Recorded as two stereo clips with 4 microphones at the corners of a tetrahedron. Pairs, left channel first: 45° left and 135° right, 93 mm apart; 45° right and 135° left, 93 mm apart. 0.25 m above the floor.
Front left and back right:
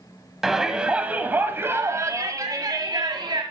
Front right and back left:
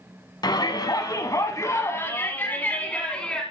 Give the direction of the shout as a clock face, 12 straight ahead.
2 o'clock.